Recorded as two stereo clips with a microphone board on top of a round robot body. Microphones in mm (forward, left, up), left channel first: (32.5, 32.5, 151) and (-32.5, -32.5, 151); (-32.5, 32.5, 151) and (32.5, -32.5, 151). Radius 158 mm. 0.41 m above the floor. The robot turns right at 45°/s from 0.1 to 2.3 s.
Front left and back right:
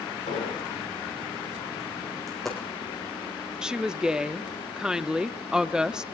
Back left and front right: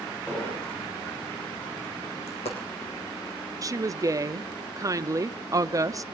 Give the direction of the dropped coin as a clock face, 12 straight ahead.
8 o'clock.